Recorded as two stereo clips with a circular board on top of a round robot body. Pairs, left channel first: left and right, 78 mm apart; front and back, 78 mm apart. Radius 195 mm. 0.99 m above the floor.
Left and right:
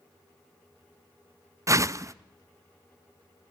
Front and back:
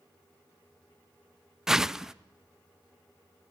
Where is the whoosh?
100° right, 0.8 m.